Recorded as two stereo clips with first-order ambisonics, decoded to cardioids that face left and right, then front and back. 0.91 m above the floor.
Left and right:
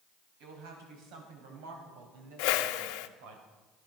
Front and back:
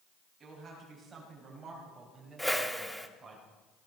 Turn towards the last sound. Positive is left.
turn(degrees=90)